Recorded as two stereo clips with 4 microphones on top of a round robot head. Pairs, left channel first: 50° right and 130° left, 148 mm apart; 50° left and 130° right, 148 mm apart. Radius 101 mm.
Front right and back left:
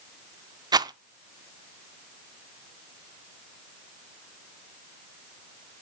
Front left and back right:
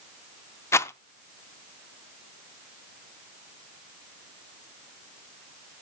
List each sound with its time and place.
0.7 s a rattle: 105° left, 0.6 m